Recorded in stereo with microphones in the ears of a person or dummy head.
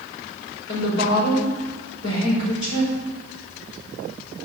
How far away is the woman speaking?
About 5.5 m.